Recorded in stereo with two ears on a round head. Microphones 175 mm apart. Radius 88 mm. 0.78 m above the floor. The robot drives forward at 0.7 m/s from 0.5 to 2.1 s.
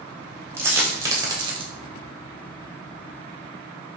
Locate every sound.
0.6 s a dropped coin: 10° right (ahead or behind), 1.4 m; by 1.7 s 25° right (ahead or behind), 0.7 m